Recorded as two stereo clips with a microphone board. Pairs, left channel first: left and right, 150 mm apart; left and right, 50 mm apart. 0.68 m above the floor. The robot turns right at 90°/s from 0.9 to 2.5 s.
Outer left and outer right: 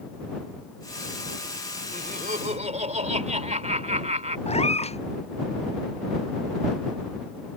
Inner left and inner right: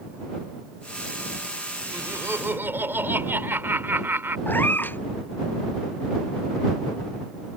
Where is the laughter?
105° right; by 4.4 s 50° right.